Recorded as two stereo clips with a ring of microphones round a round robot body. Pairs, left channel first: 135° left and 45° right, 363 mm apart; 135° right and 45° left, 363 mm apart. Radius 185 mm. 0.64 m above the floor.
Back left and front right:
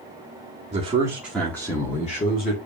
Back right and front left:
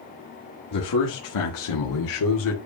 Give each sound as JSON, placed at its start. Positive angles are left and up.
{"t": 0.7, "sound": "a man speaking", "azimuth_deg": -115, "distance_m": 1.8}